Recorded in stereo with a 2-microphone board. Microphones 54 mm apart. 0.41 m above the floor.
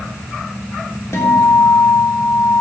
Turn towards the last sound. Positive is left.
turn(degrees=65)  # may be behind; listen again after turning